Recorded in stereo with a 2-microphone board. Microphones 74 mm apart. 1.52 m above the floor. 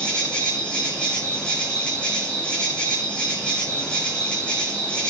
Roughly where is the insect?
Centre.